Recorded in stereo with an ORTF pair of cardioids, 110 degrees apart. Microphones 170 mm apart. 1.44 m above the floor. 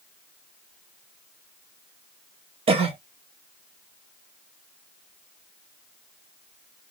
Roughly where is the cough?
Ahead right.